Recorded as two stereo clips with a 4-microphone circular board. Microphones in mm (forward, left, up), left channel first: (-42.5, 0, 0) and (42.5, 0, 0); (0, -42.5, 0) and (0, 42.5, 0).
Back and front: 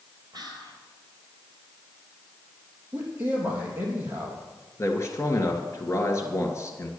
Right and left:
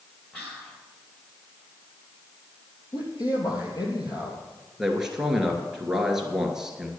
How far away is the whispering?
About 3 m.